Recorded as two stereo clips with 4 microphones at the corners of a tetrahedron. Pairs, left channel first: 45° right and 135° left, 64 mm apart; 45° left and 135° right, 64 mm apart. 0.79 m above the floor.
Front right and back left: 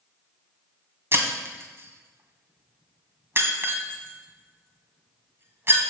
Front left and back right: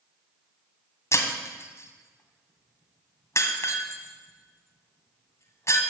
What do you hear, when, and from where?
1.1 s breaking glass: 85° left, 2 m